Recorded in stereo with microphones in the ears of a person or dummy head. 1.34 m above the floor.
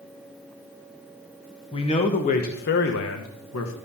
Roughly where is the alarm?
I don't hear an alarm.